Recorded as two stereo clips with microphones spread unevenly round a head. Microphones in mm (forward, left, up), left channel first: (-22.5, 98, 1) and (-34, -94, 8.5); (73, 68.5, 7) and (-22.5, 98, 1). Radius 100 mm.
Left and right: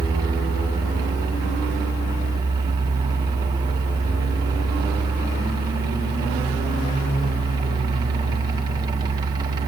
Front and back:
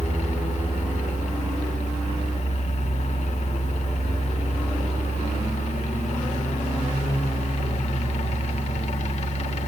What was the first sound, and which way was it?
A fan, 20° right.